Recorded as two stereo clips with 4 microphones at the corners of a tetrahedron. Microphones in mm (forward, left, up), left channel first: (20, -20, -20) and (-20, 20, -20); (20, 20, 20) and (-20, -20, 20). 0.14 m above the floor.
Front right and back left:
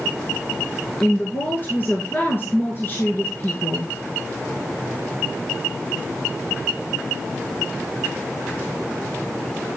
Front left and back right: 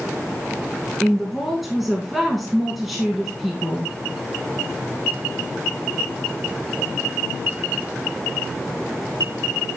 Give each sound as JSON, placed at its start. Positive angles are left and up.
{"t": 1.0, "sound": "a woman speaking", "azimuth_deg": -45, "distance_m": 1.4}